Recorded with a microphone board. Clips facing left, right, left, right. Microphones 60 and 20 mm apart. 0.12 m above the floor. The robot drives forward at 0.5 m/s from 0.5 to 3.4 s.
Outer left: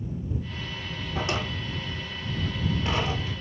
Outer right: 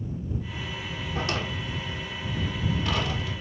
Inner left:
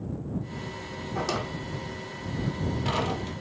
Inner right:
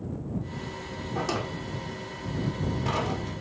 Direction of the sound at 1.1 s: 20° left (ahead or behind).